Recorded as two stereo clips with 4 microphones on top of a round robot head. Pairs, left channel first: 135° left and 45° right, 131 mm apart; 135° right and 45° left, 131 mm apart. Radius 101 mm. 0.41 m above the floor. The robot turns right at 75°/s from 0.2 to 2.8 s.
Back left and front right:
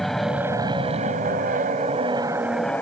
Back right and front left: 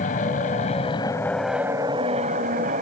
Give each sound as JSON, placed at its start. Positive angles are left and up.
{"t": 0.0, "sound": "an aircraft", "azimuth_deg": -140}